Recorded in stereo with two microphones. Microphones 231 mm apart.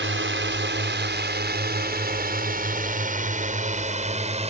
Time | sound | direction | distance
0.0 | a drone | 50° right (ahead or behind) | ?